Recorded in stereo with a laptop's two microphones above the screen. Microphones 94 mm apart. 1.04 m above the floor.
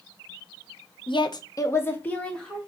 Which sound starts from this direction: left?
A woman speaking, at 1.1 s.